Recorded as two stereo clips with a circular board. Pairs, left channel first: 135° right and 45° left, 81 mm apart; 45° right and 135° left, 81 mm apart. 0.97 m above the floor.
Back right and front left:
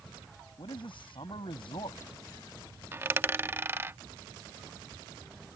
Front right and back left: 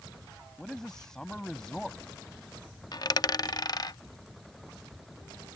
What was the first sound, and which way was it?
A man speaking, 130° right.